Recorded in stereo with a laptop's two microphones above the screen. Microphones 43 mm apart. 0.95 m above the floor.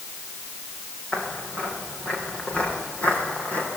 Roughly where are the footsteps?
Left.